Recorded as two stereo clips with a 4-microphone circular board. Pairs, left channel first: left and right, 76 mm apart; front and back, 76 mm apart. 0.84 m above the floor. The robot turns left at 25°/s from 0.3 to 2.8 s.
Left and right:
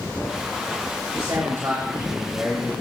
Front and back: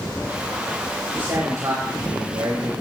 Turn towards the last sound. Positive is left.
turn(degrees=-170)